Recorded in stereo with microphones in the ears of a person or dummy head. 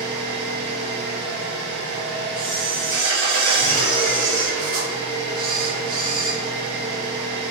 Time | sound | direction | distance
0.0 | an engine running | 55° right (ahead or behind) | 1.1 m
2.4 | a camera shutter | 25° right (ahead or behind) | 1.0 m